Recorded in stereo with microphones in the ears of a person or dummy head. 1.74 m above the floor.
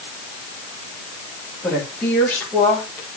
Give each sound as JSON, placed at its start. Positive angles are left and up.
{"t": 1.6, "sound": "a woman speaking", "side_deg": 5, "distance_m": 8.5}